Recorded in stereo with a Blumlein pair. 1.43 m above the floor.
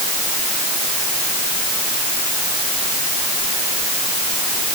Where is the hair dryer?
No hair dryer in this recording.